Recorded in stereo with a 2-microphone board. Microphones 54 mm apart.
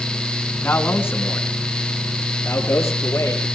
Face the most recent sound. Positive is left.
turn(degrees=60)  # may be behind; listen again after turning